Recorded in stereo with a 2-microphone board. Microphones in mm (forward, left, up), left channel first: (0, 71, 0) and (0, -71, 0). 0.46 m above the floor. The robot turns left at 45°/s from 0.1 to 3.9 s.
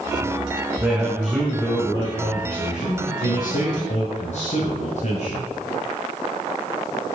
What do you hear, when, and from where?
0.8 s a man speaking: 155° right, 2 m; by 5.5 s 65° left, 2 m